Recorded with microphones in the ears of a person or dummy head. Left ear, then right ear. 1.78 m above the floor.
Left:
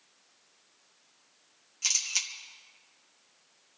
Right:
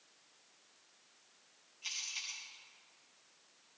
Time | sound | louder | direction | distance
1.8 | a camera shutter | left 11 dB | 60° left (ahead or behind) | 1.9 m